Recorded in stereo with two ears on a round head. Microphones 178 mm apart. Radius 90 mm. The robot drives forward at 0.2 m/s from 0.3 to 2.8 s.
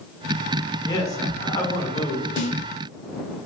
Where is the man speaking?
20° left (ahead or behind), 1.1 m; by 2.3 s 15° left (ahead or behind), 1.2 m.